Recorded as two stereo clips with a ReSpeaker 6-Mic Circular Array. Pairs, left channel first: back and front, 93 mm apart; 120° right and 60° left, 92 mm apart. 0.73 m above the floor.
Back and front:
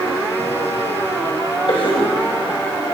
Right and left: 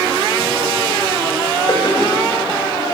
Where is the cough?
155° right, 4 m.